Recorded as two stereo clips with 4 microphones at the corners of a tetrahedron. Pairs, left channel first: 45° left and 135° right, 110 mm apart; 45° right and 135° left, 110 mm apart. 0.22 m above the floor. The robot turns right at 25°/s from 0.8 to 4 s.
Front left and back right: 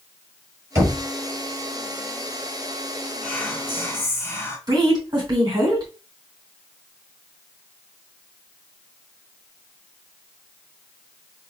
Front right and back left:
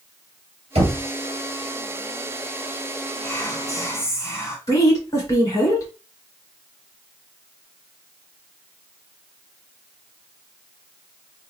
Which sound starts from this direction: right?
A woman speaking, at 4.7 s.